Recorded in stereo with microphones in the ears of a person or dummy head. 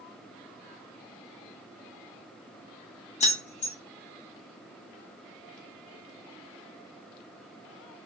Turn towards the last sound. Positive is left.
turn(degrees=30)  # may be behind; listen again after turning